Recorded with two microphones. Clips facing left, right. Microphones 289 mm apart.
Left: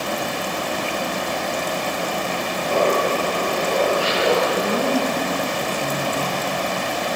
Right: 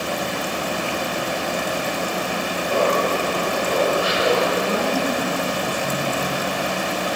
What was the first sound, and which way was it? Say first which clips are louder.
Laughter: left 1 dB; 80° left.